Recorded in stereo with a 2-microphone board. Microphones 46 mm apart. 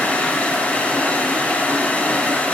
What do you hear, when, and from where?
0.0 s running water: 35° left (ahead or behind), 4.5 m